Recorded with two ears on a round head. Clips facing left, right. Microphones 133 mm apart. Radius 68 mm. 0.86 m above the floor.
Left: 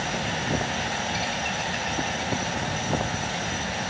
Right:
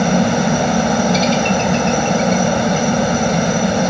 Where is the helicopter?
70° right (ahead or behind).